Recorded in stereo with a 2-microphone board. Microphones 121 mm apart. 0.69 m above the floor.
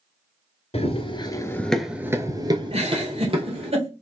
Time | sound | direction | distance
0.7 | running footsteps | 55° left (ahead or behind) | 1.0 m
2.7 | a giggle | 55° right (ahead or behind) | 1.4 m